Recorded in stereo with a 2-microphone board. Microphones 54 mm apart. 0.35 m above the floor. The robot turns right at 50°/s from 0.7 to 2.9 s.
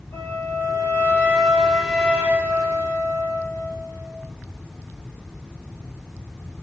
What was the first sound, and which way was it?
A flute, 135° left.